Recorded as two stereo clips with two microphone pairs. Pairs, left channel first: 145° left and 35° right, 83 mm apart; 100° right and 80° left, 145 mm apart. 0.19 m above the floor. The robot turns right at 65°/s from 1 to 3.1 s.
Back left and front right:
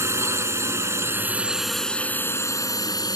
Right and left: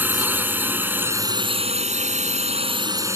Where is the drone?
5° left; by 3.2 s 145° left.